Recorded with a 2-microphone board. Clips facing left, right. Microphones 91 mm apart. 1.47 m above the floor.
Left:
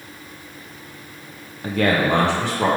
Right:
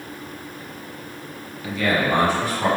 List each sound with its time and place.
1.6 s a man speaking: 40° left (ahead or behind), 0.6 m; by 2.7 s 85° left, 1.9 m